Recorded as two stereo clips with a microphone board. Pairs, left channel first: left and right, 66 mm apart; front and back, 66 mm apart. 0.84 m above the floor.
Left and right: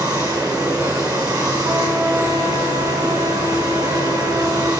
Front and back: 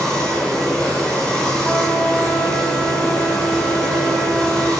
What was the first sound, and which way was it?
Running water, 85° right.